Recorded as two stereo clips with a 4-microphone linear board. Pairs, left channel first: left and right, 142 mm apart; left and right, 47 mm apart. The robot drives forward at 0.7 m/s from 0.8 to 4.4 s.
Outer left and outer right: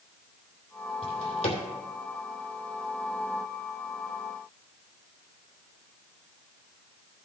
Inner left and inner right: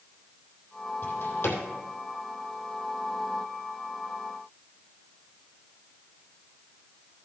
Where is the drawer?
45° left (ahead or behind), 3 m; by 1.6 s 50° left (ahead or behind), 2.5 m.